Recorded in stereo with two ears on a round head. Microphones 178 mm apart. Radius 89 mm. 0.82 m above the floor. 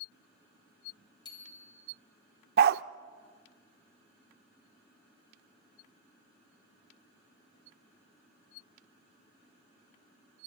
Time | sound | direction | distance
1.2 | a bicycle bell | 25° left (ahead or behind) | 3.5 m
2.6 | a dog barking | 50° right (ahead or behind) | 0.6 m